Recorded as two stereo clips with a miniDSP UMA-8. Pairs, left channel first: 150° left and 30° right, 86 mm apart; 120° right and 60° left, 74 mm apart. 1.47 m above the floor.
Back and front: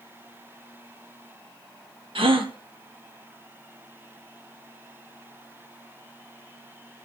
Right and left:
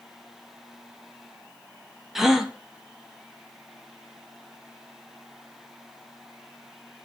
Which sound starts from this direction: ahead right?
A gasp, at 2.1 s.